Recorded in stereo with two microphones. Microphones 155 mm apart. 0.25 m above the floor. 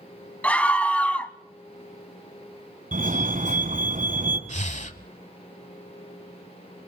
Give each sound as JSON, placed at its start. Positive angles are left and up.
{"t": 0.4, "sound": "a scream", "side_deg": 10, "distance_m": 1.6}
{"t": 2.9, "sound": "a fire alarm", "side_deg": -60, "distance_m": 4.0}
{"t": 4.5, "sound": "breathing", "side_deg": 50, "distance_m": 1.0}